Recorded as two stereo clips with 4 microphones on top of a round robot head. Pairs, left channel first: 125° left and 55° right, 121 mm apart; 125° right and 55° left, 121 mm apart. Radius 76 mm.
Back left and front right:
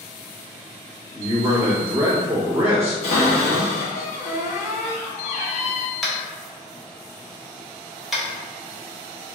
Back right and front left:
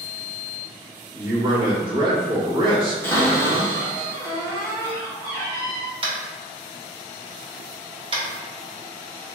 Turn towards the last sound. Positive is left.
turn(degrees=35)